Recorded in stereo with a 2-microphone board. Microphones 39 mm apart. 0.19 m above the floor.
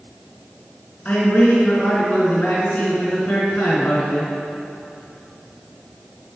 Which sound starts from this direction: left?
A man speaking, at 1.1 s.